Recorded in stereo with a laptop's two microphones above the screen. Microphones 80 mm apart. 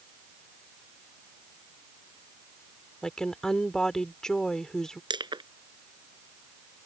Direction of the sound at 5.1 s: 75° right (ahead or behind).